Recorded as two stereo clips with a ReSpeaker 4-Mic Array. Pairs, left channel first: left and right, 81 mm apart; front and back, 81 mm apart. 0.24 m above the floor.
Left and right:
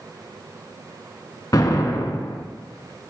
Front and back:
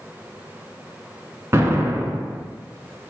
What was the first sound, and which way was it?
An explosion, 130° left.